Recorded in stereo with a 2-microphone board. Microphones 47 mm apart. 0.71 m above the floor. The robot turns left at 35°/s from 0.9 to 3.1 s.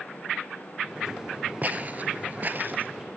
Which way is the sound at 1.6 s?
35° right (ahead or behind).